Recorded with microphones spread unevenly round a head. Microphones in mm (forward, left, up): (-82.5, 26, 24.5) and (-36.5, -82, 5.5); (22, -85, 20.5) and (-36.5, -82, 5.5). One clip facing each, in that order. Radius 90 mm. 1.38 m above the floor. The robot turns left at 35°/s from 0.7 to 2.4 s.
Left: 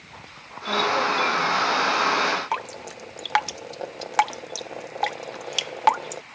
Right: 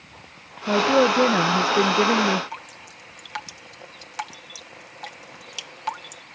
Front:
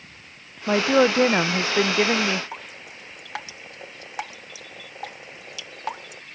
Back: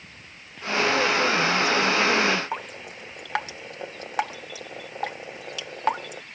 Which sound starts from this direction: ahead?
A woman speaking, at 0.7 s.